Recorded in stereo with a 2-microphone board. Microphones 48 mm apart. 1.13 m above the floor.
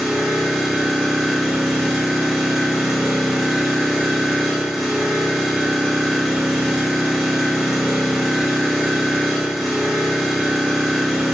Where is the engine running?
Centre (ahead or behind), 1.2 m.